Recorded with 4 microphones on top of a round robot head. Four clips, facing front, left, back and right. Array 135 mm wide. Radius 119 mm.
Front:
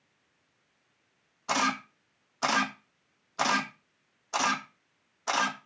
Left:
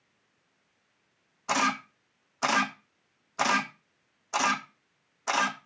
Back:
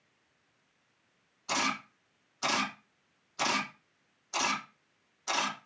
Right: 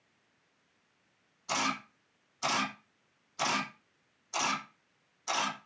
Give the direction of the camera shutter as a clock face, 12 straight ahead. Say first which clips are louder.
Left 6 dB, front 4 dB; 10 o'clock.